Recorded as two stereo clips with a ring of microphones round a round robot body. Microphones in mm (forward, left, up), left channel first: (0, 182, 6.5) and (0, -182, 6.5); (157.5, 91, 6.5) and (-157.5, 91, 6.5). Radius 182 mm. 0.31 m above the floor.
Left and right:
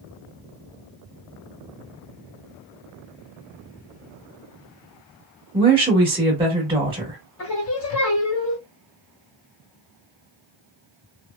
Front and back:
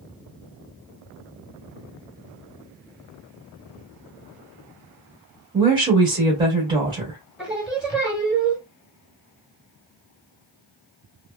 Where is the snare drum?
I don't hear a snare drum.